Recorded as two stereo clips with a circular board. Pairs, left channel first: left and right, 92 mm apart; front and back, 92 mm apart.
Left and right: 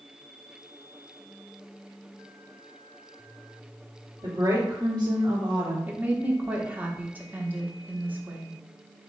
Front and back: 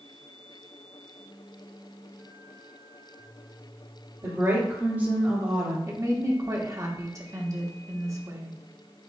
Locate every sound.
4.2 s a woman speaking: 140° right, 2.5 m; by 5.8 s 105° right, 2 m
5.9 s a woman speaking: 150° right, 1.0 m